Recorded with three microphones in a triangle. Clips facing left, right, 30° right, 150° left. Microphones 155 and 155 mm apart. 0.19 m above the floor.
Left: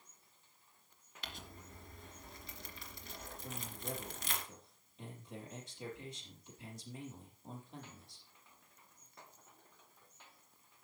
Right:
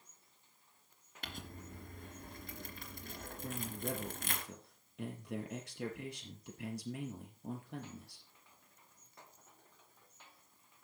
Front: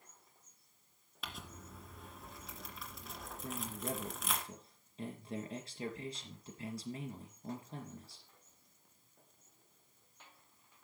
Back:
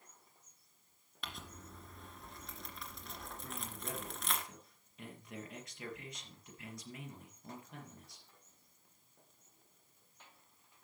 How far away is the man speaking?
About 4.5 m.